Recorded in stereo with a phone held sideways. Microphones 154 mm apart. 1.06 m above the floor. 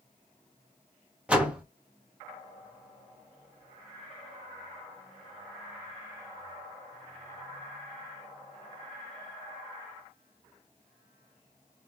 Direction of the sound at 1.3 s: 10° right (ahead or behind).